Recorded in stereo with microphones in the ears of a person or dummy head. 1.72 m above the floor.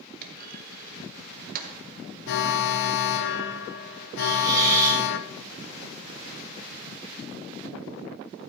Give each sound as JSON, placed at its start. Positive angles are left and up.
{"t": 0.2, "sound": "a clunk", "side_deg": -50, "distance_m": 1.3}
{"t": 2.3, "sound": "an alarm", "side_deg": 70, "distance_m": 0.8}
{"t": 4.2, "sound": "a hiss", "side_deg": -20, "distance_m": 3.5}